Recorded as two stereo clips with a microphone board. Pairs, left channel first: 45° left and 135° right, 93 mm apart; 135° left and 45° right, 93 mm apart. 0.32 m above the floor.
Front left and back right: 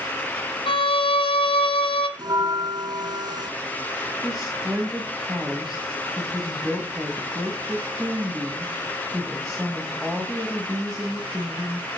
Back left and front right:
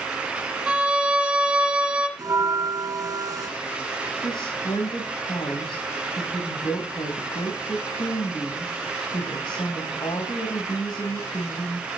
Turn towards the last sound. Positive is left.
turn(degrees=135)